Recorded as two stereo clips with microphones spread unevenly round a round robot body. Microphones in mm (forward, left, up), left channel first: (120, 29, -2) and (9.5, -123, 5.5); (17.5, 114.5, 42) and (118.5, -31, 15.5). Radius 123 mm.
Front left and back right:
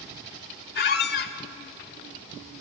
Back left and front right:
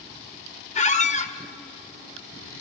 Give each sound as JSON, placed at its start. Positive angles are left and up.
{"t": 0.8, "sound": "a squeak", "azimuth_deg": 75, "distance_m": 1.0}